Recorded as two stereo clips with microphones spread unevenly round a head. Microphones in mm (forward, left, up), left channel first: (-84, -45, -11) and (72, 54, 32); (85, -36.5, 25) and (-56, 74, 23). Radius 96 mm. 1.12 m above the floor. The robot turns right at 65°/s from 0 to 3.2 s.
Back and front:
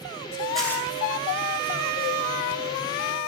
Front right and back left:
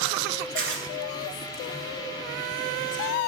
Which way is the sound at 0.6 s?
120° left.